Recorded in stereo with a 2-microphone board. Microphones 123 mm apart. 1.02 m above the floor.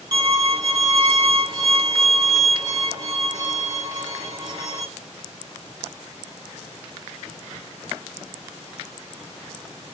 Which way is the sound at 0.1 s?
40° right (ahead or behind).